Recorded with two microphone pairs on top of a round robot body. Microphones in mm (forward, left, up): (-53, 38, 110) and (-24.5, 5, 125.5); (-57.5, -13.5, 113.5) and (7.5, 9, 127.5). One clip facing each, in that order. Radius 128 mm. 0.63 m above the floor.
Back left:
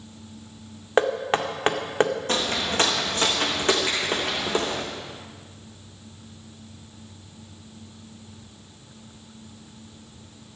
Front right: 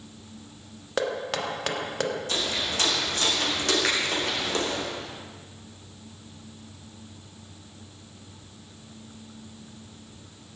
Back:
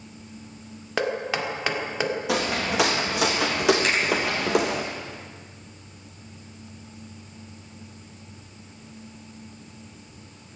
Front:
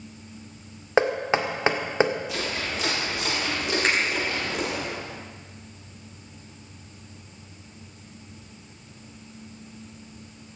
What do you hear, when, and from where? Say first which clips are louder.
1.0 s knocking: back left 6 dB, front 4 dB; 85° left, 1.8 m
2.3 s footsteps: back left 4 dB, back 5 dB; straight behind, 3.5 m; by 4.8 s 155° right, 3.5 m
3.8 s a finger snap: front right 1 dB, front 1 dB; 35° right, 4.5 m